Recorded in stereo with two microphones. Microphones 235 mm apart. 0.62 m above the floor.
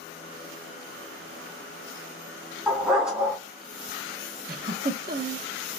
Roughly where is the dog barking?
Centre.